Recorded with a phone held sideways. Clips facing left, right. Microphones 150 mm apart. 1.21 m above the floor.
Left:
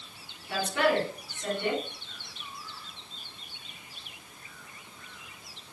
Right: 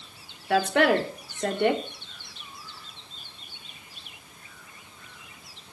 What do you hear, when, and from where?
0.5 s a woman speaking: 70° right (ahead or behind), 2.5 m